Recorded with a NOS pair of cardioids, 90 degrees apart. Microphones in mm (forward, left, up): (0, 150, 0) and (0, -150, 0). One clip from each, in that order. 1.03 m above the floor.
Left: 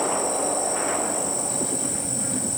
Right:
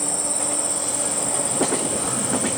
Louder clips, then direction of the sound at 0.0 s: Left 3 dB; 45° right.